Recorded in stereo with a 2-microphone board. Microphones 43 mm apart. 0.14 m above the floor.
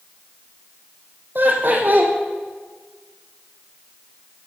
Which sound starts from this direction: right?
Laughter, at 1.4 s.